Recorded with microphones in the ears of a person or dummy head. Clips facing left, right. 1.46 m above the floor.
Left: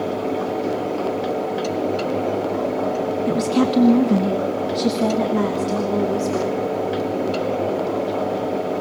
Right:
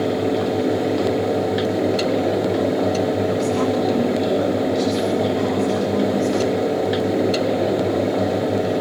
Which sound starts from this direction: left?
A woman speaking, at 3.3 s.